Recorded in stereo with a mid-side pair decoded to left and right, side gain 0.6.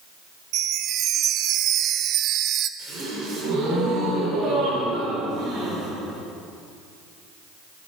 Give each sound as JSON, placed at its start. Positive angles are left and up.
{"t": 0.5, "sound": "a chime", "azimuth_deg": -55, "distance_m": 0.7}
{"t": 2.8, "sound": "a gasp", "azimuth_deg": -60, "distance_m": 4.5}